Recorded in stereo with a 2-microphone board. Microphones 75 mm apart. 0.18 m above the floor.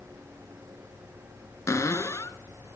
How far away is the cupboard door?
About 0.7 m.